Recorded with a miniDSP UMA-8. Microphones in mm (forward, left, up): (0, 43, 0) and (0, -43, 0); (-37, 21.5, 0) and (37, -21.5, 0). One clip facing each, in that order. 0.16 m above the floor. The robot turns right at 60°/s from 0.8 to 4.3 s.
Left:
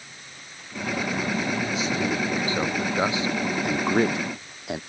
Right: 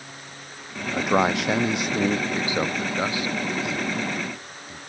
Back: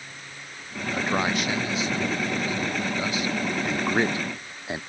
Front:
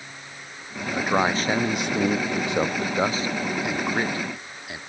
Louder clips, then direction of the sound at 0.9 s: Right 7 dB, front 3 dB; 110° right.